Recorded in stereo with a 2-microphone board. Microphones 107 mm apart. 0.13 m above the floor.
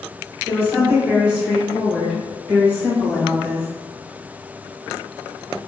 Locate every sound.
0.5 s a woman speaking: 25° right (ahead or behind), 1.6 m; by 3.7 s 30° left (ahead or behind), 1.8 m